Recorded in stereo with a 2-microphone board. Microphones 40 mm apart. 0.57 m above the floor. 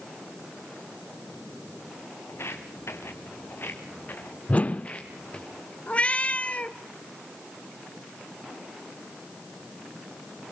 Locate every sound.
2.3 s footsteps: 75° left (ahead or behind), 3 m; by 5.5 s 25° left (ahead or behind), 4 m
4.5 s a whoosh: 35° left (ahead or behind), 0.6 m
5.9 s a cat meowing: 30° left (ahead or behind), 0.8 m